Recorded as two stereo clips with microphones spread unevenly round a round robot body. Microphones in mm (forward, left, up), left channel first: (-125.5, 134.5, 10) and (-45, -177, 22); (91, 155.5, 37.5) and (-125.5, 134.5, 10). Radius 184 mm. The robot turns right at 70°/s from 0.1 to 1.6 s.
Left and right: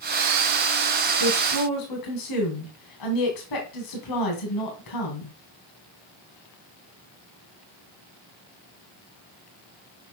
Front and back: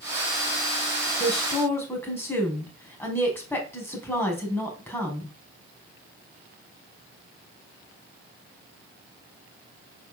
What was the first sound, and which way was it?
A woman speaking, 60° left.